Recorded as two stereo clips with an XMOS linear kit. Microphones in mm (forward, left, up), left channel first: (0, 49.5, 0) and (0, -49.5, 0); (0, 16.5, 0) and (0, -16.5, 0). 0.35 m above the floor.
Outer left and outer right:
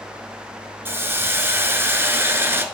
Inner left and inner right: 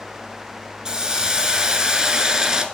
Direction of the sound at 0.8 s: 25° right (ahead or behind).